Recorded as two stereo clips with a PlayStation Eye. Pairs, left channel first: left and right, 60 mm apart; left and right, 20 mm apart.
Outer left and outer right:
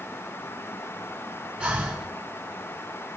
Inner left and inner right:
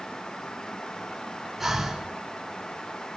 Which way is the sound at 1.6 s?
20° right (ahead or behind).